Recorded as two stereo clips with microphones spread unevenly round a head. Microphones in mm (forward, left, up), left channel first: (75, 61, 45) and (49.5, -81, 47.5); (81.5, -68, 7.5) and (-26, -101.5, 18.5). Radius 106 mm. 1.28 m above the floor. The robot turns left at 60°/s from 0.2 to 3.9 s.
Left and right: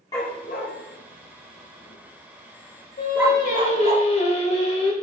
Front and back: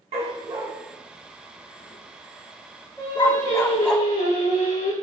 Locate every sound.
0.1 s a dog barking: 155° left, 1.3 m; by 4.0 s 70° right, 1.3 m
3.0 s singing: 100° left, 3 m; by 4.9 s 45° left, 3 m